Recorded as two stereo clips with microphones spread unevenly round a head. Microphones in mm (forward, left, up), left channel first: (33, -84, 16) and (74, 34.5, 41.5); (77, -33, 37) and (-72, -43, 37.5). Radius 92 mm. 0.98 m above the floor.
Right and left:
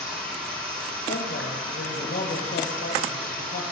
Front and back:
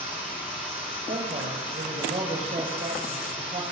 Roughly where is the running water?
Left.